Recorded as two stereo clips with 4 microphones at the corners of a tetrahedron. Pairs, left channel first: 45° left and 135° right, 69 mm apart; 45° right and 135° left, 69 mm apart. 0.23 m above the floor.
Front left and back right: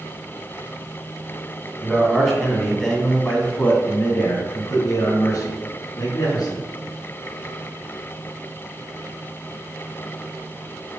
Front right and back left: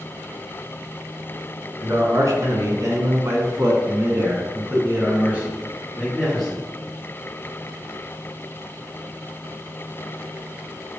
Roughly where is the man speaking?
Behind left.